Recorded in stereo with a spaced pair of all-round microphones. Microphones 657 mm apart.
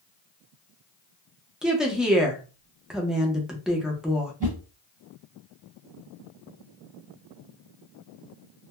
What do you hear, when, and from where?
1.6 s a woman speaking: centre (ahead or behind), 0.6 m
4.4 s a whoosh: 10° right (ahead or behind), 1.2 m